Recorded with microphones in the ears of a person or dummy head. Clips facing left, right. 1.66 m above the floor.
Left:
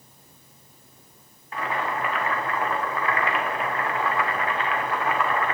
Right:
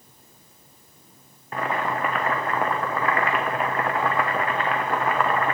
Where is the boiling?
45° right (ahead or behind), 1.3 m.